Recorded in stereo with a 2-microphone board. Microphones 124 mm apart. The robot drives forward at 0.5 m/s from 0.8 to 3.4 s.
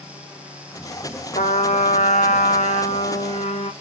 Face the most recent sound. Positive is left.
turn(degrees=65)  # may be behind; listen again after turning